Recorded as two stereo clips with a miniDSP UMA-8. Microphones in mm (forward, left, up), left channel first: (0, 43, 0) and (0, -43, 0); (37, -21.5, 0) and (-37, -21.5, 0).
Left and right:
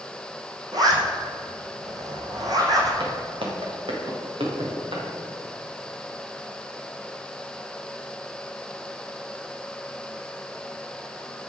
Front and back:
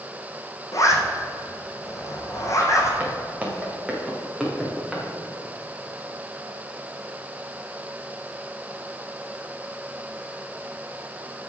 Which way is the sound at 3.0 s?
110° right.